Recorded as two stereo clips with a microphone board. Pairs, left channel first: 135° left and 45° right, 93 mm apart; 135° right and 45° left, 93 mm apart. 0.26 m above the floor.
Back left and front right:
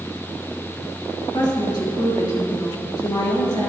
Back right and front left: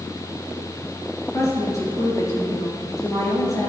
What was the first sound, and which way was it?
A woman speaking, 175° left.